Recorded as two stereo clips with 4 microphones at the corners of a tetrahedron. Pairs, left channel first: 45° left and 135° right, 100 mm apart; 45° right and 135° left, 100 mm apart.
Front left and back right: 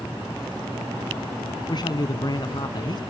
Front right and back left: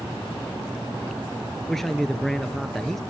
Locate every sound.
1.7 s a man speaking: 40° left, 2 m